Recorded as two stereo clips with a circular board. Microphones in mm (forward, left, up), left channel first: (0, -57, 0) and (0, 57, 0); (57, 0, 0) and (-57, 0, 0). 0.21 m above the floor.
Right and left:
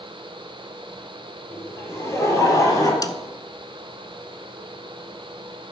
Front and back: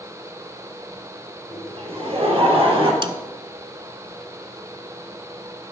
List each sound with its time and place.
1.5 s laughter: 155° right, 4 m; by 2.9 s 145° right, 4 m
3.0 s a snare drum: 145° right, 0.7 m